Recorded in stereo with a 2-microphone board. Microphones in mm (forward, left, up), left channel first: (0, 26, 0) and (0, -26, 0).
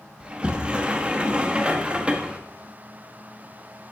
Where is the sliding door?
20° right (ahead or behind), 0.8 m.